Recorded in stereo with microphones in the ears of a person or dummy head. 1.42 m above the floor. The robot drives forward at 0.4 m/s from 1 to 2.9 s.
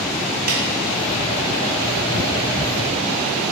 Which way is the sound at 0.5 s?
50° right (ahead or behind).